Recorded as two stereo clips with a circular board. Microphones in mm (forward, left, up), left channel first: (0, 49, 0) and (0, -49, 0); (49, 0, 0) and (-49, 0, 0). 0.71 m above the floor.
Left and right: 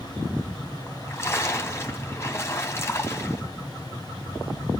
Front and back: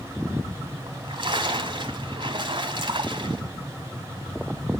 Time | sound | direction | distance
0.9 | a splash | 150° left | 2.5 m